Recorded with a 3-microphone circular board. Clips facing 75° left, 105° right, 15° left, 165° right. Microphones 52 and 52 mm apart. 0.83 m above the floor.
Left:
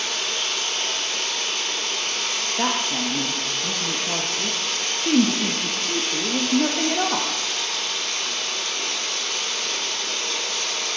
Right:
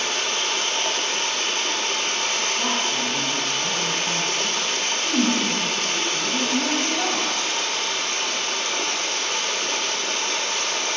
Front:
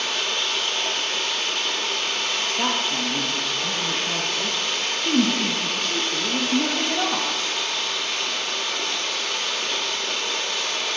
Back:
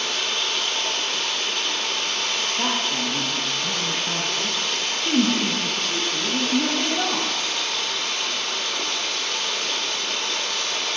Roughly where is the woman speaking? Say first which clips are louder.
Even, front 1 dB; left.